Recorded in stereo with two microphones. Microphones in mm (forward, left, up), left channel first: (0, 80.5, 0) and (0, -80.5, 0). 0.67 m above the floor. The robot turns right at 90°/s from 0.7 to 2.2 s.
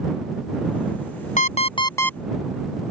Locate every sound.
1.4 s an alarm clock: 100° left; by 2.2 s 175° left